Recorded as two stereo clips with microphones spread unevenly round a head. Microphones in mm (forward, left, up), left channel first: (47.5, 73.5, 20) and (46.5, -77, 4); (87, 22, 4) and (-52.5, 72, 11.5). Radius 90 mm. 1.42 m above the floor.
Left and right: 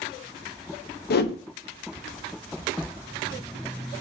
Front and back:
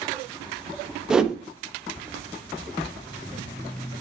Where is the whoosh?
75° left, 0.6 m.